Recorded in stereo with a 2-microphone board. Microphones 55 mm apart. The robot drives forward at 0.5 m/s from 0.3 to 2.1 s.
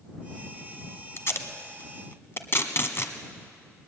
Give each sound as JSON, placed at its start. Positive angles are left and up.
{"t": 1.2, "sound": "tape being pulled", "side_deg": 50, "distance_m": 1.3}